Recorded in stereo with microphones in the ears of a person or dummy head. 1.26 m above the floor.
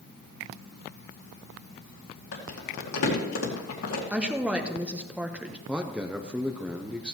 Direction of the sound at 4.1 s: 5° right (ahead or behind).